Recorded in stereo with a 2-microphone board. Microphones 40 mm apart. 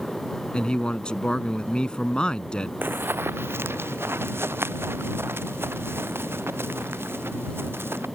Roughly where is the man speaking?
Left.